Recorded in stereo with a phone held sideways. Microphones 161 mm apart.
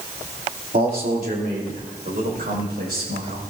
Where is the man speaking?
60° right (ahead or behind), 2.5 m; by 3.4 s 75° right (ahead or behind), 5.5 m.